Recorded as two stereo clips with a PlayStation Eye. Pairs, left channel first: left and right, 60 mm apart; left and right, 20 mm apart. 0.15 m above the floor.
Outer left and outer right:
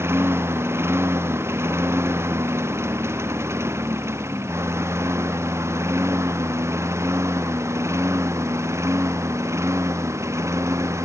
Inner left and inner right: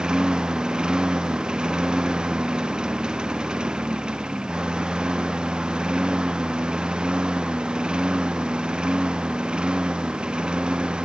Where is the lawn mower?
45° right (ahead or behind); by 11.1 s 50° right (ahead or behind).